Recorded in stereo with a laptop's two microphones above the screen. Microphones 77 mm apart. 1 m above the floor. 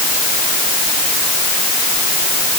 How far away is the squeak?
I don't hear a squeak.